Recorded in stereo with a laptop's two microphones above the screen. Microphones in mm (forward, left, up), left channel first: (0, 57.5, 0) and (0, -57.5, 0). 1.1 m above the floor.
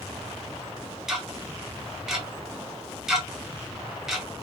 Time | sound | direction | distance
1.1 | ticking | 5° right (ahead or behind) | 0.5 m